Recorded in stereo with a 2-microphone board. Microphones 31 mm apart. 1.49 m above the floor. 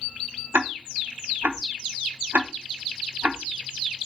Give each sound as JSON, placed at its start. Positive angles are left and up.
{"t": 0.5, "sound": "ticking", "side_deg": -80, "distance_m": 0.8}